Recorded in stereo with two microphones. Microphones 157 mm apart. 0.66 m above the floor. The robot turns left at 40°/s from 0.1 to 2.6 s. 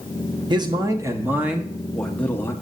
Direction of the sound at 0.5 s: 125° right.